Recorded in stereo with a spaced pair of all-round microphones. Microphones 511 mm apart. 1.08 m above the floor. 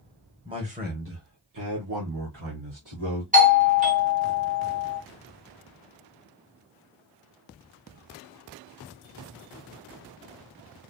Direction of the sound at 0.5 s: 10° right (ahead or behind).